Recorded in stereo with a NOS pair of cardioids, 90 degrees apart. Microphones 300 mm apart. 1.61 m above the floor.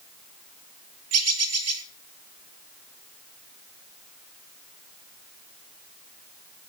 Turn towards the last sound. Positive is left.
turn(degrees=-55)